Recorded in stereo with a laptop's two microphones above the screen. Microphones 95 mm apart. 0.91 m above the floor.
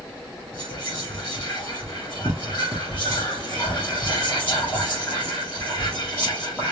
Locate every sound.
0.5 s whispering: 20° left (ahead or behind), 1.5 m